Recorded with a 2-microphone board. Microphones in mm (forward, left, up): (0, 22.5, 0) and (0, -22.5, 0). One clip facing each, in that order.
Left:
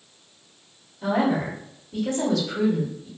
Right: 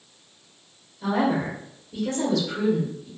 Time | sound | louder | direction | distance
1.0 | a woman speaking | left 1 dB | centre (ahead or behind) | 1.3 m